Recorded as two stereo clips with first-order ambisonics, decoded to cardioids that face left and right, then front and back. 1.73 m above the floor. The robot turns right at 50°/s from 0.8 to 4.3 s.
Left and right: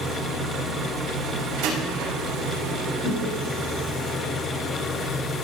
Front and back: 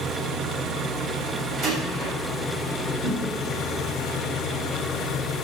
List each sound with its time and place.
0.0 s an engine running: 165° right, 1.4 m; by 5.4 s 10° left, 1.4 m
1.6 s a door slam: 125° right, 6.5 m; by 2.1 s 100° right, 6.5 m
3.0 s a whoosh: 150° right, 3.5 m; by 3.2 s 140° right, 3.5 m